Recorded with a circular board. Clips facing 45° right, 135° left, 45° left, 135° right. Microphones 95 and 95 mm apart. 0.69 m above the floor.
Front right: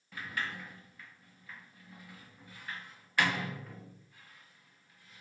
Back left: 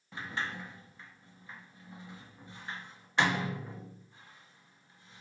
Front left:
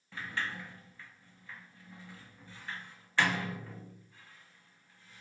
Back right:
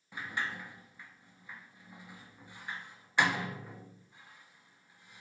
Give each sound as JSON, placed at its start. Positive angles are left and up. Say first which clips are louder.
{"t": 0.1, "sound": "a sliding door", "louder": "back left 1 dB, even", "azimuth_deg": 170, "distance_m": 0.8}